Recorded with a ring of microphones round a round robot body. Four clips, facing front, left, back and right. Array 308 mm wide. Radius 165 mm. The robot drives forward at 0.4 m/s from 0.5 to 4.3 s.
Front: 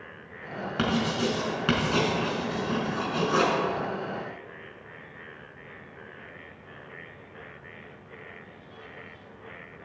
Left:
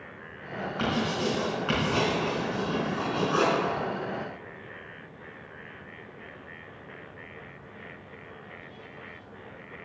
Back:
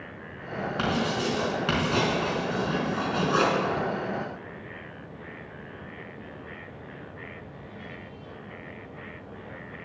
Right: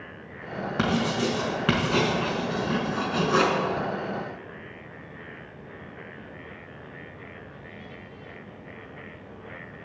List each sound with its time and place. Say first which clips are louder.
0.8 s writing: right 3 dB, front 1 dB; 75° right, 4.5 m; by 3.5 s 90° right, 4.5 m